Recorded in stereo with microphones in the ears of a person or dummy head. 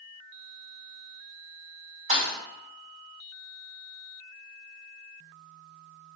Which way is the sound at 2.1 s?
50° right (ahead or behind).